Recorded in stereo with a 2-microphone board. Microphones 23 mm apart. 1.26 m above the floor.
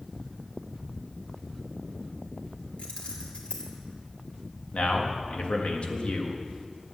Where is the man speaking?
65° left (ahead or behind), 1.7 m.